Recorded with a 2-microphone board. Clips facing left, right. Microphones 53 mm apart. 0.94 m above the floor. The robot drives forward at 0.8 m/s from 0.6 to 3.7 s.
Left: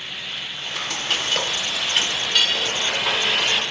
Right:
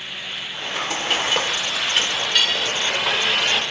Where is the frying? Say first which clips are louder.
Right 3 dB; 20° right (ahead or behind), 0.6 m; by 3.6 s 5° right (ahead or behind), 2.5 m.